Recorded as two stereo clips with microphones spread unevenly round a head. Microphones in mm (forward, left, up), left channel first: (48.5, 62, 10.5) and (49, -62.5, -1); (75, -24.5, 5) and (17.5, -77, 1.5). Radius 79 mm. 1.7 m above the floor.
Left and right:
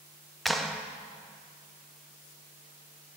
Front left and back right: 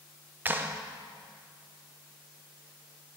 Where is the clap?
170° left, 0.6 m.